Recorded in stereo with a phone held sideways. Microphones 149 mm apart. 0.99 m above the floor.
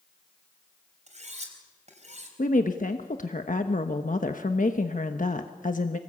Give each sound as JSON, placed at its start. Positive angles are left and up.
{"t": 1.1, "sound": "cutlery clinking", "side_deg": -45, "distance_m": 4.0}
{"t": 2.4, "sound": "a woman speaking", "side_deg": 55, "distance_m": 1.1}